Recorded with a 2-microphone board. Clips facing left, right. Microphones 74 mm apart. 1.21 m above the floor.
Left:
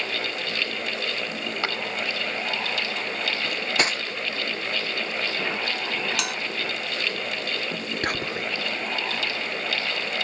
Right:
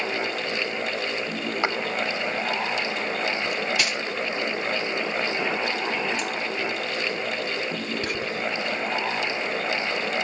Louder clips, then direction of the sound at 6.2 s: Right 1 dB; 80° left.